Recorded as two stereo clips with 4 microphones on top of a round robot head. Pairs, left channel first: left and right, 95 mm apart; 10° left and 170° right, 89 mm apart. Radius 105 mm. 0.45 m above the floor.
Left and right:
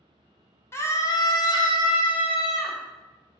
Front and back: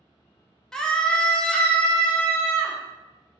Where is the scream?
85° left, 1.0 m.